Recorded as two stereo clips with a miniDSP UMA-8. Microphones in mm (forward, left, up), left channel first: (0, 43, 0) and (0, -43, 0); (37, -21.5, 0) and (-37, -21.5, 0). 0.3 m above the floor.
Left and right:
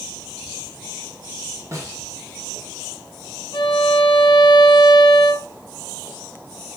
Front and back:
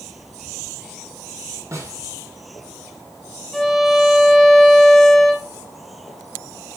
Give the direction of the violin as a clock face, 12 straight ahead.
9 o'clock.